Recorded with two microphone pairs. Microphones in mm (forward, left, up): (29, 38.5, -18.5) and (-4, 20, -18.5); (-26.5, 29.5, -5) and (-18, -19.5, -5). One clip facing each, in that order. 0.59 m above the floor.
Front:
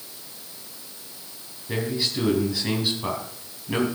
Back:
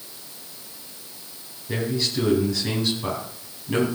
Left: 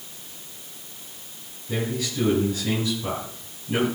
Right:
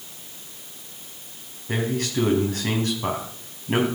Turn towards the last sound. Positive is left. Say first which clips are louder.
# back 1 dB, right 3 dB
turn(degrees=-45)